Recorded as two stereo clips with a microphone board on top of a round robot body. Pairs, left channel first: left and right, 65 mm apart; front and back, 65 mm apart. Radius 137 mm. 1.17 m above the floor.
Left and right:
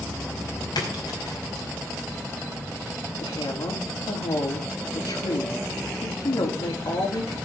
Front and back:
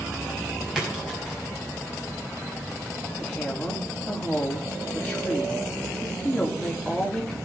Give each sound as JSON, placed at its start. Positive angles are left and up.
{"t": 0.8, "sound": "a splash", "azimuth_deg": 100, "distance_m": 5.0}
{"t": 3.2, "sound": "a woman speaking", "azimuth_deg": 80, "distance_m": 4.0}